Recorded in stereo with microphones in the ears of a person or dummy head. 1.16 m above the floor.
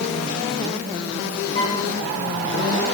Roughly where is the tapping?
No tapping in this recording.